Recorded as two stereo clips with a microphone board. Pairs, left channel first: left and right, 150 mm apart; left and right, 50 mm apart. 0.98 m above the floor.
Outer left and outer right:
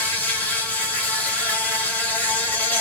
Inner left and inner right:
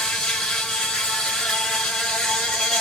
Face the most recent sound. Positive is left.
turn(degrees=10)  # may be behind; listen again after turning